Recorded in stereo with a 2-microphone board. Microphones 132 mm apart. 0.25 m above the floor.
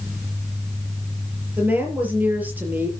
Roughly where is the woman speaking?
Centre.